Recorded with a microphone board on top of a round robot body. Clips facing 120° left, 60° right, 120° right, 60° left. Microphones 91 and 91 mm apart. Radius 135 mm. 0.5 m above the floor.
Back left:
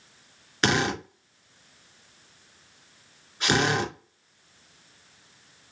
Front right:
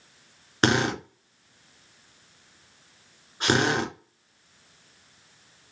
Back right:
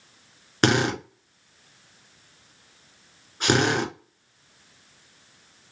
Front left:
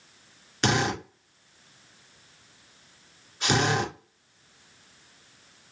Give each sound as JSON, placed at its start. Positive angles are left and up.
{"t": 0.6, "sound": "a drill", "azimuth_deg": -100, "distance_m": 2.5}